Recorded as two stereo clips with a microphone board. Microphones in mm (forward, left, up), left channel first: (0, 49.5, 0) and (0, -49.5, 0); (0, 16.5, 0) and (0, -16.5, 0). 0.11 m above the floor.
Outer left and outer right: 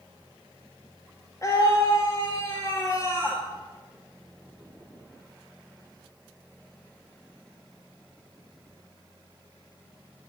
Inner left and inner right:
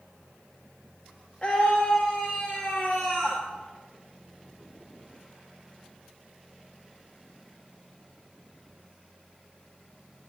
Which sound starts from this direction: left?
A scream, at 1.4 s.